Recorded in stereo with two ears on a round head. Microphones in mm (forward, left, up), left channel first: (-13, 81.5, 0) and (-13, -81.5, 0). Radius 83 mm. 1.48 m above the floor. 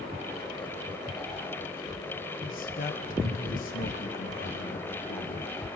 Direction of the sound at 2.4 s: 55° left (ahead or behind).